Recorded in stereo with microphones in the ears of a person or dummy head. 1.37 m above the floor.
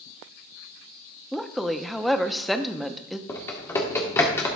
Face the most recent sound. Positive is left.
turn(degrees=15)  # may be behind; listen again after turning